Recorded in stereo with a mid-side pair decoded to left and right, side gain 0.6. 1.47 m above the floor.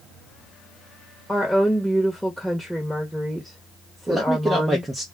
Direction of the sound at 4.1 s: 15° right.